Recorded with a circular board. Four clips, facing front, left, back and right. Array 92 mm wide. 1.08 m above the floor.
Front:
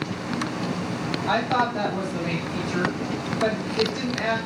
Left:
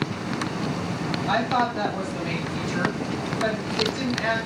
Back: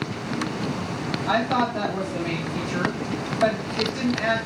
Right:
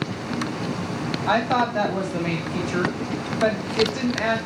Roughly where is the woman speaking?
Right.